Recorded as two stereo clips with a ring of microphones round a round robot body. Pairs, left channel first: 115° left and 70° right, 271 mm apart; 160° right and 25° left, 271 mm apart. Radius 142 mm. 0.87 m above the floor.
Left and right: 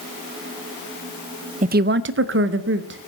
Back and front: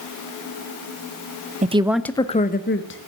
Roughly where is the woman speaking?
Ahead right.